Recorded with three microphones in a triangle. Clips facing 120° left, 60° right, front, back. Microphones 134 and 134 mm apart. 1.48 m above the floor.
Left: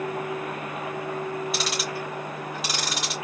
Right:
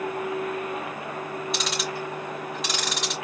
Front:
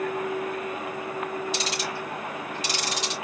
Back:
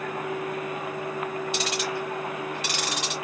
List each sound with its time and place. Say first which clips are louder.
1.5 s ticking: even, back 2 dB; 155° right, 3.5 m